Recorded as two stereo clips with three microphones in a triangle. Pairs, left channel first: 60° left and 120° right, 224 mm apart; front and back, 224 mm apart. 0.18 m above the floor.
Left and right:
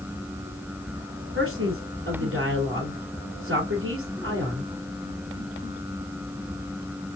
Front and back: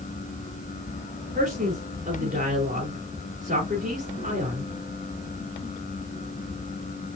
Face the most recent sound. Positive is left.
turn(degrees=-130)